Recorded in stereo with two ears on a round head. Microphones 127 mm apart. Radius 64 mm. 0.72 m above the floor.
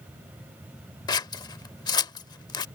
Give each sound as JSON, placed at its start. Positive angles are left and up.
{"t": 1.1, "sound": "scissors", "side_deg": 30}